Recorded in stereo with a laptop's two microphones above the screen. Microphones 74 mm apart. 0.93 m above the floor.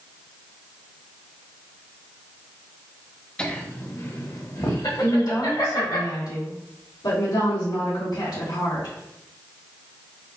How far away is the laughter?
About 0.9 m.